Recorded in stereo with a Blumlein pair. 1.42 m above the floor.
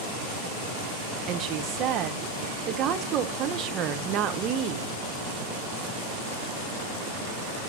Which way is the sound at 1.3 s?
35° right.